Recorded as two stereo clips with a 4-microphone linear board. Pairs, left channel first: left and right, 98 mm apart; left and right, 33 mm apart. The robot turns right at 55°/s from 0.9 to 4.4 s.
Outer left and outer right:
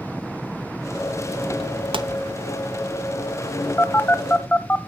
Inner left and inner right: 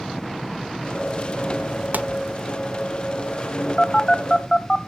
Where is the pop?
65° right (ahead or behind), 0.7 m; by 2.1 s 70° right (ahead or behind), 0.7 m.